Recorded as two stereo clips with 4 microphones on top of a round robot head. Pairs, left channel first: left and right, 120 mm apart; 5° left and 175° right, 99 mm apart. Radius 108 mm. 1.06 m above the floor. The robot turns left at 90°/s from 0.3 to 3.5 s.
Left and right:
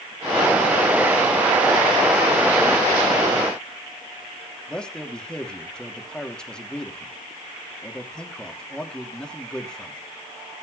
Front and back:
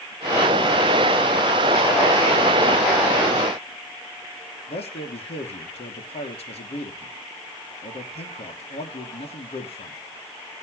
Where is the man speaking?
5° left, 3 m.